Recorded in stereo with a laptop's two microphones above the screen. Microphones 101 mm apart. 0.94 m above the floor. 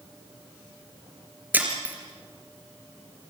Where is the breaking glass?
15° right (ahead or behind), 3 m.